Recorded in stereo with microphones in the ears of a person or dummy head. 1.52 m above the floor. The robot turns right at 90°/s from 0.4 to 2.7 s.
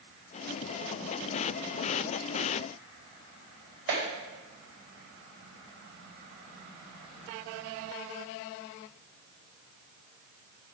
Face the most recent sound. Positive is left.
turn(degrees=-65)  # may be behind; listen again after turning